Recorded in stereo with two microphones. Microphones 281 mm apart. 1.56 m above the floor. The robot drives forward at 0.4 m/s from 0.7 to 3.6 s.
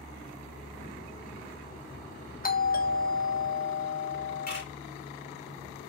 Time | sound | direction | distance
2.4 | a doorbell | 35° left (ahead or behind) | 0.9 m
4.5 | a camera shutter | 35° left (ahead or behind) | 3 m